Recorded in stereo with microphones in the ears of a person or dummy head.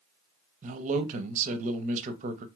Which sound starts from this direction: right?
A man speaking, at 0.6 s.